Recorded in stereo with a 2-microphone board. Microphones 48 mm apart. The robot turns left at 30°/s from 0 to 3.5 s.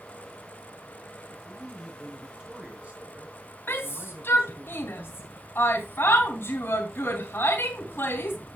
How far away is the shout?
About 3 m.